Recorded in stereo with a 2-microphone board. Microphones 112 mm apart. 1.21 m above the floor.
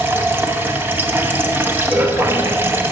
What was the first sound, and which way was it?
Running water, 20° right (ahead or behind).